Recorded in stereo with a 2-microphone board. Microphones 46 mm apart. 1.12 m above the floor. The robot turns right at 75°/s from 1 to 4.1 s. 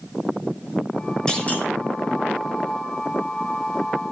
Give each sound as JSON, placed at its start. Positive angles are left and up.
{"t": 1.3, "sound": "a clunk", "side_deg": 15, "distance_m": 4.0}